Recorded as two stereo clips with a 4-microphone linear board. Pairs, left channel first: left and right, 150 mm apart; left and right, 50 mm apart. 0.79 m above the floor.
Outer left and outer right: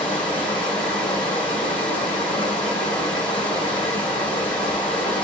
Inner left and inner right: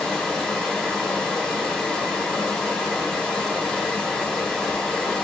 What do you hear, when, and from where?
0.0 s running water: 10° left (ahead or behind), 1.9 m